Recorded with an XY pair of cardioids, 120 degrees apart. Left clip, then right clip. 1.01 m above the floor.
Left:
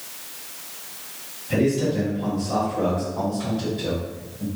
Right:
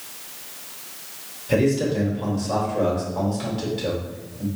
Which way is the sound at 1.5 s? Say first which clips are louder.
Right 1 dB; 65° right.